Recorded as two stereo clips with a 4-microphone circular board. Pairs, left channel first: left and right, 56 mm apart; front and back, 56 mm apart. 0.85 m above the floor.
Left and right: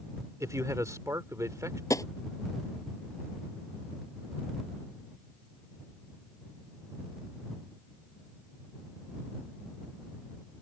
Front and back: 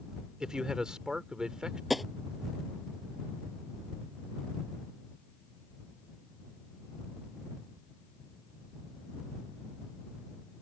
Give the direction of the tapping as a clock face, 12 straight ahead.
9 o'clock.